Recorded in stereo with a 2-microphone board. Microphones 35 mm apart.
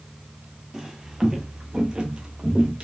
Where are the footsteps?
10° right (ahead or behind), 0.8 m; by 2.8 s 30° right (ahead or behind), 1.1 m.